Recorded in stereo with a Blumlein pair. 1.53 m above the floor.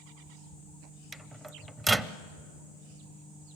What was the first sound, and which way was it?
A microwave, 5° right.